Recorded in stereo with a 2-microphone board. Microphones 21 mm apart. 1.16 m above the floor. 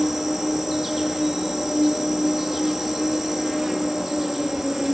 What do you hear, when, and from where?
0.0 s an insect: 10° right (ahead or behind), 1.7 m